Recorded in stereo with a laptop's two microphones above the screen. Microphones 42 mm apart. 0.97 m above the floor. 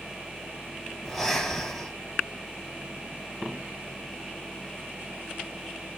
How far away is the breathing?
About 4 m.